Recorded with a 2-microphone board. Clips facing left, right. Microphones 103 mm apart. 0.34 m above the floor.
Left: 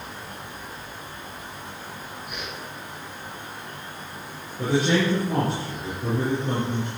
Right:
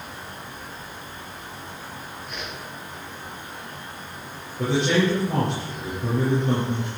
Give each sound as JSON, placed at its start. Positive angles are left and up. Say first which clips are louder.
{"t": 2.3, "sound": "a whoosh", "louder": "right 1 dB", "side_deg": 10, "distance_m": 6.0}
{"t": 4.6, "sound": "a man speaking", "louder": "right 1 dB", "side_deg": 5, "distance_m": 7.0}